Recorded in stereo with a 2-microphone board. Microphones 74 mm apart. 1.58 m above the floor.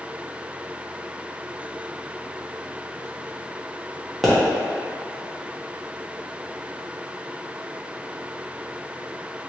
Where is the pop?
Centre (ahead or behind), 1.0 m.